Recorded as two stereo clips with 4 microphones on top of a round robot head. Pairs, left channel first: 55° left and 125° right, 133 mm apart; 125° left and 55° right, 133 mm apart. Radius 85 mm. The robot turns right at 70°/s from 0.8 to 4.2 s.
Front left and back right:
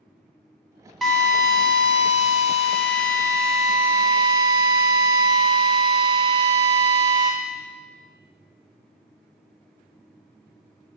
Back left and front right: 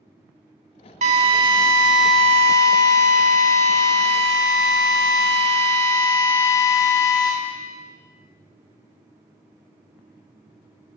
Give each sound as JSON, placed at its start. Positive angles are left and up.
{"t": 1.0, "sound": "a drill", "azimuth_deg": -35, "distance_m": 0.8}